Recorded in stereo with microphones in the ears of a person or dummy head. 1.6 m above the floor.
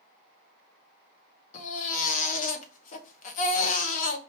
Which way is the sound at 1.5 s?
45° left (ahead or behind).